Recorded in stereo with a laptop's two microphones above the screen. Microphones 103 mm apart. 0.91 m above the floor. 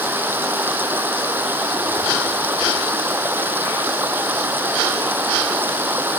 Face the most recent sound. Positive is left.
turn(degrees=-20)  # may be behind; listen again after turning